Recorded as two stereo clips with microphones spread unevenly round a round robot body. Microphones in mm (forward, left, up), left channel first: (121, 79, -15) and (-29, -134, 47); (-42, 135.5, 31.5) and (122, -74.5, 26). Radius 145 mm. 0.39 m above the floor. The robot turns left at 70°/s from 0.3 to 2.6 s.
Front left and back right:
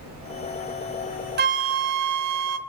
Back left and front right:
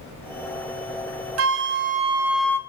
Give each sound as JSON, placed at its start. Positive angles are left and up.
{"t": 1.4, "sound": "a flute", "azimuth_deg": -70, "distance_m": 0.7}